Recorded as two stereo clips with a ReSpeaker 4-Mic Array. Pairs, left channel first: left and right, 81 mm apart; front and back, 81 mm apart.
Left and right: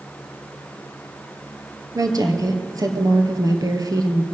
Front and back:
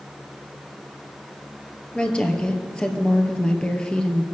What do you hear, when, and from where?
1.9 s a woman speaking: 75° right, 2 m